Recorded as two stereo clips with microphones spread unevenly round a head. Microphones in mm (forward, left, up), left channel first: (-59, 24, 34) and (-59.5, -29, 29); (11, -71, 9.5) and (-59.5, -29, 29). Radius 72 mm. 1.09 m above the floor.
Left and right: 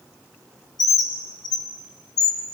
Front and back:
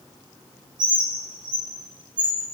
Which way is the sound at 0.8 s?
90° left.